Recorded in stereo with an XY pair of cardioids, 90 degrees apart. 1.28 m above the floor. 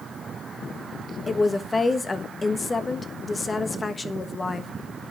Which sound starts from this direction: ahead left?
A woman speaking, at 1.3 s.